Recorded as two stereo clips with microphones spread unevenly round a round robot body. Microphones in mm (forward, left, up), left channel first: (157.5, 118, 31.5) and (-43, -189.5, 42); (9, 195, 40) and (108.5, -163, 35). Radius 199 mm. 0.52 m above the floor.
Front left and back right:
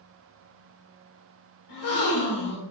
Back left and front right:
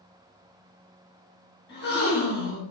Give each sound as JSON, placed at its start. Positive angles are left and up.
{"t": 1.7, "sound": "a gasp", "azimuth_deg": 45, "distance_m": 3.5}